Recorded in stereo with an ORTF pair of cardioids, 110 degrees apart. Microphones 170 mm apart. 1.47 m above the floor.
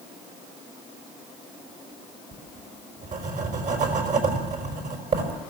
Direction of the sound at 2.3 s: 50° right.